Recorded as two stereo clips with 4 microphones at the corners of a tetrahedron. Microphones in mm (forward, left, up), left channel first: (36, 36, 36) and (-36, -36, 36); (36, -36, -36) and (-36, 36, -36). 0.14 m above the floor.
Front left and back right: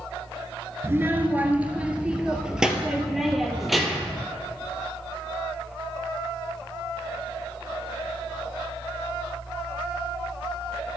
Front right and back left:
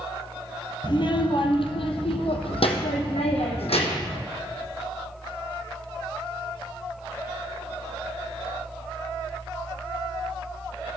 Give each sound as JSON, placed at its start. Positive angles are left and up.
{"t": 0.8, "sound": "a child speaking", "azimuth_deg": -70, "distance_m": 1.2}